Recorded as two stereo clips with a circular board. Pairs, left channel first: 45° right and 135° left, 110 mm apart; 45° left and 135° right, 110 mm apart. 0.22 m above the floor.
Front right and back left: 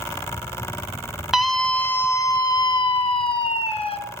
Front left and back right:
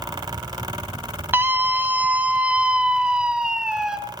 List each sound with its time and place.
1.3 s a scream: 145° right, 1.3 m; by 4.0 s 50° right, 2.5 m